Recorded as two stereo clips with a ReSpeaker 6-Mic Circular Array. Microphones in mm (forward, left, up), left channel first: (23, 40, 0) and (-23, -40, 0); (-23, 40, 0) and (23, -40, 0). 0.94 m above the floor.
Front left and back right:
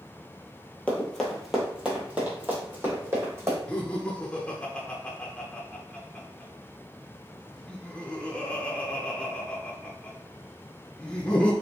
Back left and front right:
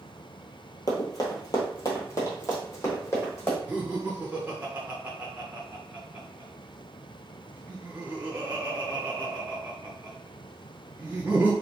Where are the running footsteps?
130° left, 1.2 m; by 3.6 s straight behind, 2.5 m.